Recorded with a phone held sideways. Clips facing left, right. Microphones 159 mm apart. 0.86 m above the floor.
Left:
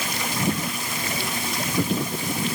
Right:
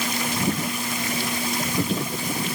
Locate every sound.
Only background noise.